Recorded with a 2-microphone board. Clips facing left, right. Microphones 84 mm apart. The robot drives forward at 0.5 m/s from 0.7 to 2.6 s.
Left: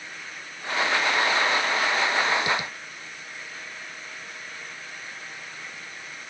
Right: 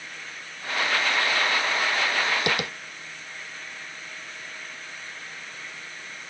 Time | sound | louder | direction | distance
2.5 | tapping | even | 80° right | ?